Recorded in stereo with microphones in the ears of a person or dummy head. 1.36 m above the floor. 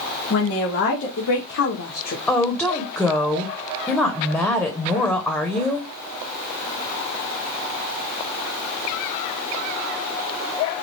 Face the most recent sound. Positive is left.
turn(degrees=5)  # may be behind; listen again after turning